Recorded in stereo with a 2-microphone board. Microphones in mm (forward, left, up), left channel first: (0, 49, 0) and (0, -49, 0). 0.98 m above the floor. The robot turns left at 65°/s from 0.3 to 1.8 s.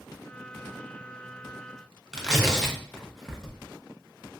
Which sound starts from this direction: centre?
Tearing paper, at 2.1 s.